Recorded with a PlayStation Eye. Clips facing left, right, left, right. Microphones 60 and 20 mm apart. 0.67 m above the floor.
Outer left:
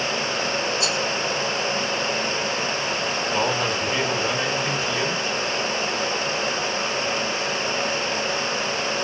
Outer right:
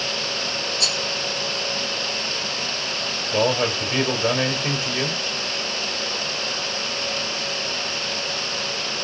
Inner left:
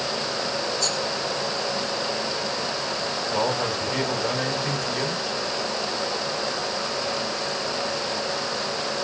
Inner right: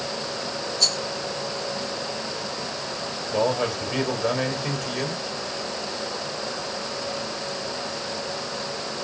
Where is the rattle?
65° right (ahead or behind), 1.1 m.